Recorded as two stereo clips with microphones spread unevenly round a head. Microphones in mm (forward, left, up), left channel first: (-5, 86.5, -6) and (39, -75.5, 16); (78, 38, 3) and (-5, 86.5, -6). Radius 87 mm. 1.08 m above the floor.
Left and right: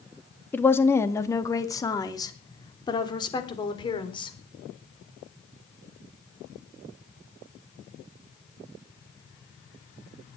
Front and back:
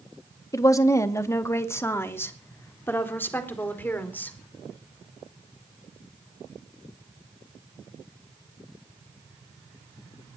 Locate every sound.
0.5 s a woman speaking: 30° left, 1.9 m; by 4.4 s 40° left, 4 m